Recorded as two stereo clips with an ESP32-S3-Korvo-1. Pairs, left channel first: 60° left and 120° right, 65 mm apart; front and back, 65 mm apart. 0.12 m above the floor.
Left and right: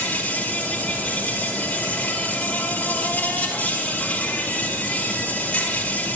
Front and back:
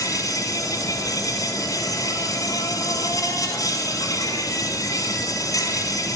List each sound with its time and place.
0.0 s an insect: 5° right, 2.5 m